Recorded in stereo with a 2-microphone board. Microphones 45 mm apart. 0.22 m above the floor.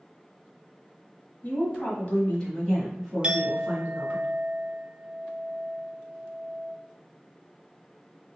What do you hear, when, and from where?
1.4 s a woman speaking: 45° left (ahead or behind), 1.7 m; by 4.2 s 20° right (ahead or behind), 2.5 m
3.2 s a clink: 25° right (ahead or behind), 0.5 m